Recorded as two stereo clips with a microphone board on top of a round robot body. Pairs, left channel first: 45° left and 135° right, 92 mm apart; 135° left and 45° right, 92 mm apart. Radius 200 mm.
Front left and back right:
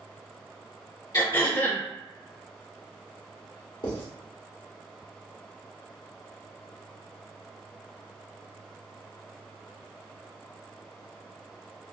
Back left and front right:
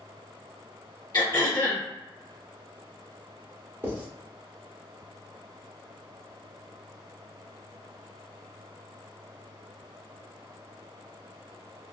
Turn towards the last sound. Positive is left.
turn(degrees=20)